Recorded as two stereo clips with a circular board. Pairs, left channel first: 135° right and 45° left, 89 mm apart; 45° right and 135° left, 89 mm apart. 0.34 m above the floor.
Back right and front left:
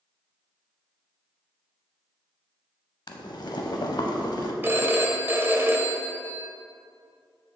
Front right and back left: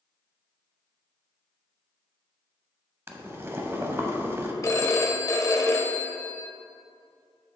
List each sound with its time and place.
3.1 s boiling: 165° right, 0.6 m
4.6 s a phone ringing: 10° right, 0.6 m